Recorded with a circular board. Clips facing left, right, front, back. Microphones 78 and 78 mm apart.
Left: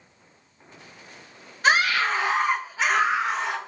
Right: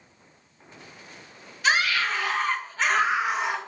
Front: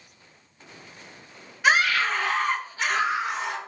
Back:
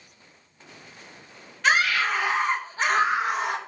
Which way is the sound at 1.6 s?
75° left.